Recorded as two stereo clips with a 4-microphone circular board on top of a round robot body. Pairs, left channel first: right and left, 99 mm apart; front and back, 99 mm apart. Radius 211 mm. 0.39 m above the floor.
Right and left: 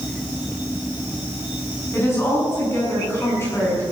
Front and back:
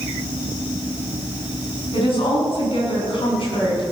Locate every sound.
1.9 s a woman speaking: 25° right, 6.5 m